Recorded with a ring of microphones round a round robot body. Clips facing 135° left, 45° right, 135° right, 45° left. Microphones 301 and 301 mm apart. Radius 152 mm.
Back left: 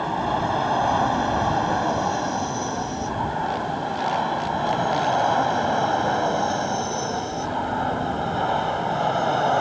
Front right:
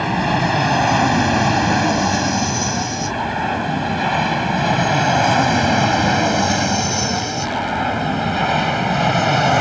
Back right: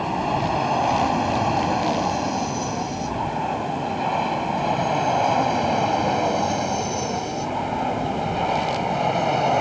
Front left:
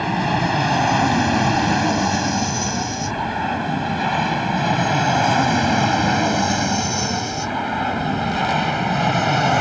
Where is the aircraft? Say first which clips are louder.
Front right 6 dB, front left 3 dB; 5° right.